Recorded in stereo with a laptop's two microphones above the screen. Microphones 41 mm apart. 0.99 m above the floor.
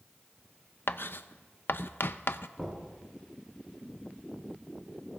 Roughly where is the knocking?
Centre.